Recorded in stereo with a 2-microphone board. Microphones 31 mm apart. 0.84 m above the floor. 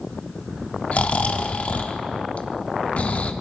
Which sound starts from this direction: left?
Snoring, at 0.9 s.